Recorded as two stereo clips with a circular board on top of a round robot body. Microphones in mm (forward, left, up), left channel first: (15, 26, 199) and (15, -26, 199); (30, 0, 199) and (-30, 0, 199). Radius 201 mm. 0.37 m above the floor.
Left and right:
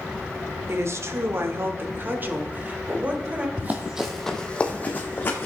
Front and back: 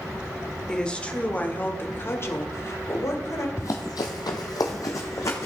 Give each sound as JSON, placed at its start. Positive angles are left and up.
{"t": 0.7, "sound": "a woman speaking", "azimuth_deg": -75, "distance_m": 1.7}
{"t": 3.6, "sound": "running footsteps", "azimuth_deg": -40, "distance_m": 1.0}